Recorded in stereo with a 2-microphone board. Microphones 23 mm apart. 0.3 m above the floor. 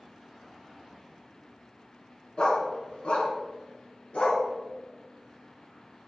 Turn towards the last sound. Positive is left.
turn(degrees=80)